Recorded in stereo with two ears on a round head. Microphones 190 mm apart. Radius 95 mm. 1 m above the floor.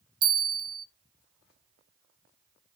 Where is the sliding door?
I don't hear a sliding door.